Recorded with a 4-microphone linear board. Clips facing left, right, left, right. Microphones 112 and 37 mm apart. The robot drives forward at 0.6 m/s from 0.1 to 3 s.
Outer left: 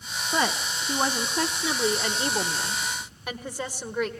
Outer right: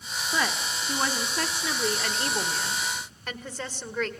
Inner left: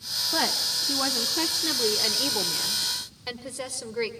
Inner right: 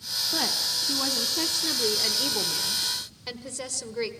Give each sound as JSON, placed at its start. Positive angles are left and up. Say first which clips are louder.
{"t": 0.3, "sound": "a woman speaking", "louder": "outer left 3 dB, inner left 2 dB", "side_deg": 20, "distance_m": 0.9}